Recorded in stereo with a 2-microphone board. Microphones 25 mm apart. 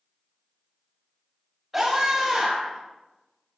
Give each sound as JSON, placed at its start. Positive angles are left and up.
{"t": 1.7, "sound": "a scream", "side_deg": -5, "distance_m": 5.0}